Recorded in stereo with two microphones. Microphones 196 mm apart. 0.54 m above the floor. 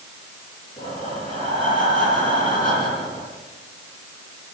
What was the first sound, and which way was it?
Breathing, 25° left (ahead or behind).